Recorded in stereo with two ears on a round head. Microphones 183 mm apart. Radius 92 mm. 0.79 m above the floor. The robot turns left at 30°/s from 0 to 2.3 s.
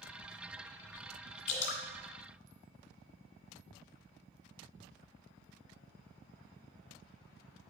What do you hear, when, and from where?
1.5 s dripping: 55° left (ahead or behind), 2.0 m; by 1.8 s 60° left (ahead or behind), 2.0 m